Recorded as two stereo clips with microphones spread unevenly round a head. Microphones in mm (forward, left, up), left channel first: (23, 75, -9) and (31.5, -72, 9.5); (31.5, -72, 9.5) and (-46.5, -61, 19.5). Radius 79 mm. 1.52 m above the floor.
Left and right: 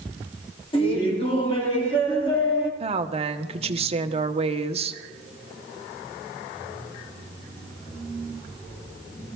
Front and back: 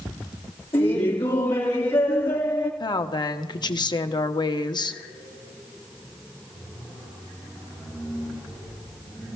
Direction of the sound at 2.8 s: 40° right.